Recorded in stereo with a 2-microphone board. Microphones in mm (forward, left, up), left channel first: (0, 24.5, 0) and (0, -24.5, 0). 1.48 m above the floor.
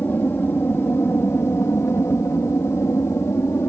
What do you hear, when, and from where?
0.0 s an aircraft: 45° left (ahead or behind); by 3.7 s 60° left (ahead or behind)